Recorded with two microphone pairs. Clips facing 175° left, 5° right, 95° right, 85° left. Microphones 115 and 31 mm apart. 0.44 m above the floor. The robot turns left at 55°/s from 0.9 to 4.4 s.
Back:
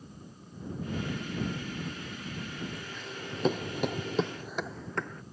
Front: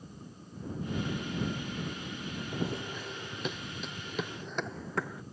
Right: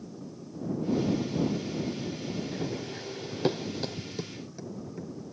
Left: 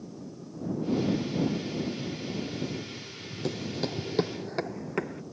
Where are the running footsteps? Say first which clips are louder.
Front 5 dB, right 1 dB; 45° right; by 5.2 s 80° left.